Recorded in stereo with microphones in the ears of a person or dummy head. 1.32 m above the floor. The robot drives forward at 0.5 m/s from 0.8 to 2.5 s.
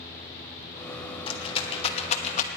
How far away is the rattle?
About 1.5 m.